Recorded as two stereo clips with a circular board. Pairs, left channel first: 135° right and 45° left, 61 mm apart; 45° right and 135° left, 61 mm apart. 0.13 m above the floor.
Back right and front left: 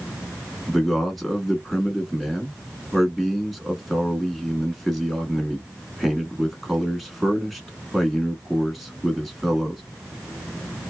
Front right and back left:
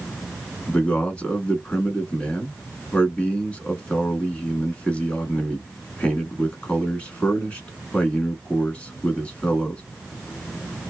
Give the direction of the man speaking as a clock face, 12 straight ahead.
2 o'clock.